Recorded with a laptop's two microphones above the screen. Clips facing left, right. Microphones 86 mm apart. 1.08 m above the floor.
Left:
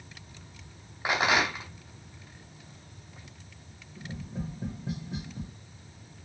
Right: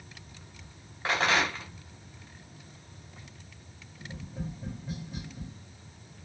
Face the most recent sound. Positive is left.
turn(degrees=75)  # may be behind; listen again after turning